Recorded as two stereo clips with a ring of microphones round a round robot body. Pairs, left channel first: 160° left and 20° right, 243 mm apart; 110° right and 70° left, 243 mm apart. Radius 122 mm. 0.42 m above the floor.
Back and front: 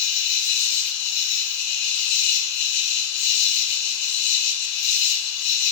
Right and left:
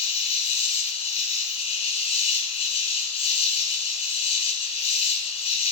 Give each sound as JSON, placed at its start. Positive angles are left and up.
{"t": 0.0, "sound": "an insect", "azimuth_deg": 180, "distance_m": 1.1}